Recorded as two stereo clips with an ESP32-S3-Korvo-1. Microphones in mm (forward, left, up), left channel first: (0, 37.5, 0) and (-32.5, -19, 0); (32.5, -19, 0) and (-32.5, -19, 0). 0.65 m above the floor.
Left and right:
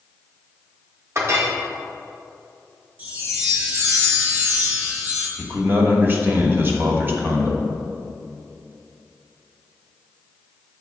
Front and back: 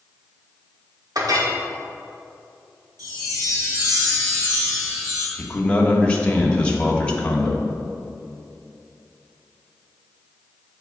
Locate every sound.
1.1 s a clink: 165° right, 1.2 m
3.0 s a chime: straight behind, 2 m
5.4 s a man speaking: 70° right, 1.1 m